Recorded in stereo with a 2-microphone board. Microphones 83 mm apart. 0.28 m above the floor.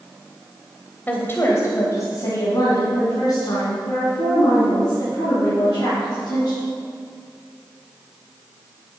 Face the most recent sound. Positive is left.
turn(degrees=50)  # may be behind; listen again after turning